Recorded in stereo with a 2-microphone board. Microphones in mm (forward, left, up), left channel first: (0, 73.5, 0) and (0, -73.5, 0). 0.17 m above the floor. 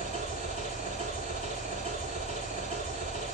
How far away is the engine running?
About 8 m.